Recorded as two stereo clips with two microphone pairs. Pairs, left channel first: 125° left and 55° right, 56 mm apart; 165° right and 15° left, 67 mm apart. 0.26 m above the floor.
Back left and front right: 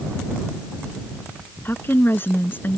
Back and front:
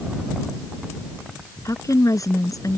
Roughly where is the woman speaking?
Behind.